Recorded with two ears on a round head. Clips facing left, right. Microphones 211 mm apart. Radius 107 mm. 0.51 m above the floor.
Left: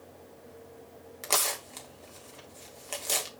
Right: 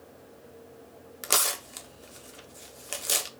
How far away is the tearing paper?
About 0.9 m.